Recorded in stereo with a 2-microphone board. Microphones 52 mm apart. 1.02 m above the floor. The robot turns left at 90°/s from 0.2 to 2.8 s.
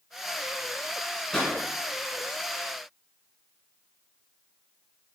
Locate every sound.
1.3 s a pop: 10° left (ahead or behind), 1.6 m; by 1.5 s 5° right (ahead or behind), 1.6 m